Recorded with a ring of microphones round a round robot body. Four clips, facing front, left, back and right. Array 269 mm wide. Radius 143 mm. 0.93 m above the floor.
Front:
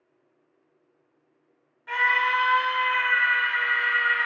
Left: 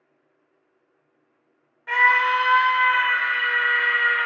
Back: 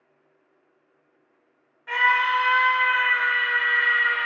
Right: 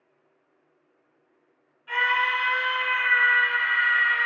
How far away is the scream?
About 4 m.